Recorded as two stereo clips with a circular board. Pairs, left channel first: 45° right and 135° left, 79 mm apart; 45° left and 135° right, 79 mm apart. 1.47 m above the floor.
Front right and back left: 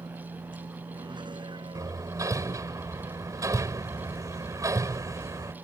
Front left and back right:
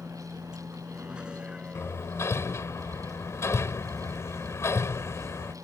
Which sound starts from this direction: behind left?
A vehicle, at 0.0 s.